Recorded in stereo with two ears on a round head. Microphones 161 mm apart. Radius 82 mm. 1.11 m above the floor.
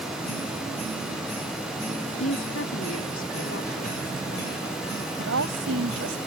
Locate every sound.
2.2 s a woman speaking: 70° left (ahead or behind); by 4.7 s 85° left
5.2 s a woman speaking: 85° right